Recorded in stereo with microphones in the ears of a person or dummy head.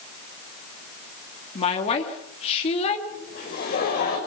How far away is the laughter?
About 7 m.